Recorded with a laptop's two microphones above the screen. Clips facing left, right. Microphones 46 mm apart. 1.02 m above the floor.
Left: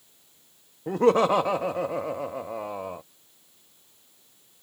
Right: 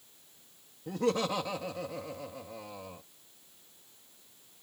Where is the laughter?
50° left (ahead or behind).